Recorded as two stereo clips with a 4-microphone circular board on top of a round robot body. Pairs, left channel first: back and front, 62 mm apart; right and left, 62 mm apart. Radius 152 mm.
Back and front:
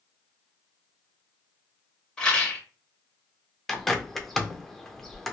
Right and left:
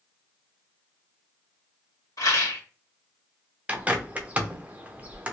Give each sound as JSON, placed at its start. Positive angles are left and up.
{"t": 2.2, "sound": "a rattle", "azimuth_deg": -105, "distance_m": 1.9}
{"t": 3.7, "sound": "a bird", "azimuth_deg": 95, "distance_m": 0.9}